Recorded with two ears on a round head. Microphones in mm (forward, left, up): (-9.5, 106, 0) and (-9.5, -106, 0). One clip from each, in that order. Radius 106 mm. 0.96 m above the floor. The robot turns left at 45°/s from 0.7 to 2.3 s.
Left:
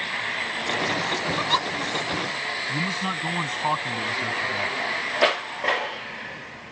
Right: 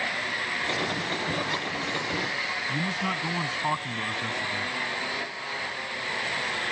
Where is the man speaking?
15° left (ahead or behind).